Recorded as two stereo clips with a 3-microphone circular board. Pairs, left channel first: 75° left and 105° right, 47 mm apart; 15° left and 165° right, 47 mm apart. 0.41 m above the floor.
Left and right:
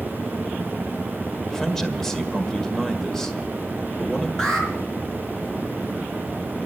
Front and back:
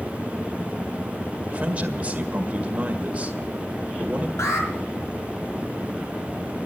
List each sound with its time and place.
1.5 s a man speaking: 150° left, 1.6 m
4.4 s an alarm: 5° right, 4 m